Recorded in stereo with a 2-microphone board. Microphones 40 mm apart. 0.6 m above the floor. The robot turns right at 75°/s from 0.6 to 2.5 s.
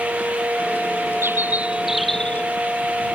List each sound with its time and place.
1.2 s a bird: 60° right; by 2.5 s 35° left